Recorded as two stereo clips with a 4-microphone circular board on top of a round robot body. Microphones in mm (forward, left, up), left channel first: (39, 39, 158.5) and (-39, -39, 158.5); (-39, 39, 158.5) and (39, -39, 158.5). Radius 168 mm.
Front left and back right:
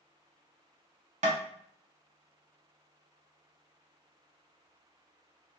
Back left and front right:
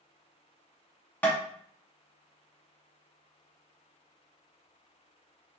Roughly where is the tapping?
Behind right.